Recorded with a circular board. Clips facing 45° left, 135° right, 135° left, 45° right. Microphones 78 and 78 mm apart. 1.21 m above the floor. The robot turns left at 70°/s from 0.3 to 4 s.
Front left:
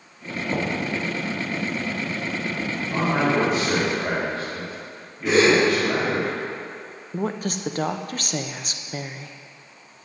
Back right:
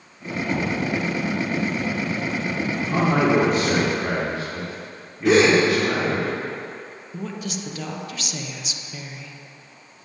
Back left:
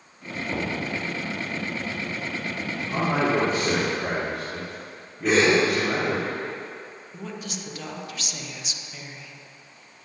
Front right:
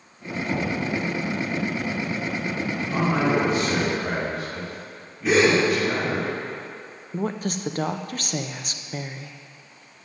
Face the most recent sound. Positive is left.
turn(degrees=0)